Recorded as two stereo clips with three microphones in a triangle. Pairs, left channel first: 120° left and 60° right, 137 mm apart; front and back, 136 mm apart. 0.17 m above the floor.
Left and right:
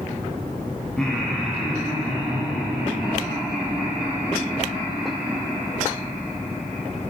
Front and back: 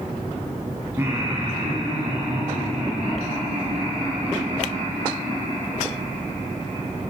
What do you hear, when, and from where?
1.0 s laughter: 165° right, 1.2 m; by 7.0 s 145° right, 7 m